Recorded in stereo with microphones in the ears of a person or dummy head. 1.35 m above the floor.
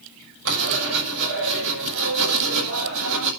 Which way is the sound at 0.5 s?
75° right (ahead or behind).